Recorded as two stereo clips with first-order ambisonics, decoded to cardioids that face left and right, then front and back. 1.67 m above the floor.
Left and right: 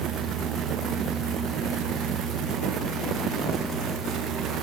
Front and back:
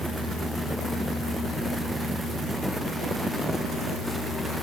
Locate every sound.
Only background noise.